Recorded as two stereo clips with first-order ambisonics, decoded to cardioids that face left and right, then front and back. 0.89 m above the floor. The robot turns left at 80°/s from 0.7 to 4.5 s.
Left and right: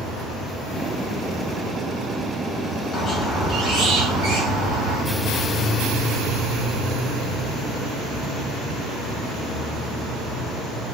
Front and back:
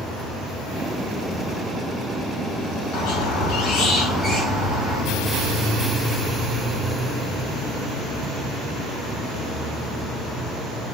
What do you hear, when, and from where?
2.9 s a squeak: 20° left, 2 m; by 5.0 s 105° right, 2 m